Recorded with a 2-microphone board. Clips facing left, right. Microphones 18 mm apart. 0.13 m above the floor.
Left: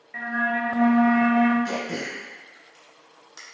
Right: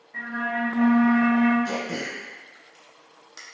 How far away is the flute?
About 0.8 m.